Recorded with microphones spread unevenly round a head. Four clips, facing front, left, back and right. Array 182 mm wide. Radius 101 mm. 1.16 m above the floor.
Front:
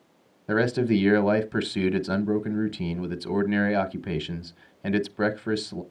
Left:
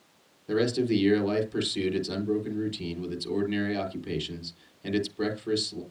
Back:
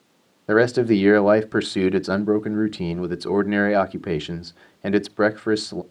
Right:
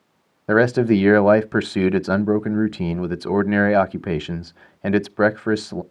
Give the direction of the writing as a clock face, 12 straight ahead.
I don't hear writing.